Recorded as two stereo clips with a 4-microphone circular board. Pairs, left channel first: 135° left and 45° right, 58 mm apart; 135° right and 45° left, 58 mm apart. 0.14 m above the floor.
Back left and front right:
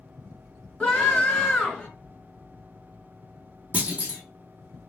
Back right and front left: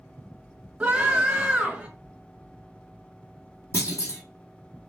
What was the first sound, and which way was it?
A scream, 80° left.